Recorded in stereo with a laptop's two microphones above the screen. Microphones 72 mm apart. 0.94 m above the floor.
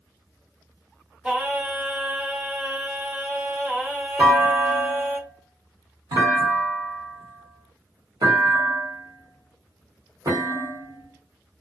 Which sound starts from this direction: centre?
Singing, at 1.2 s.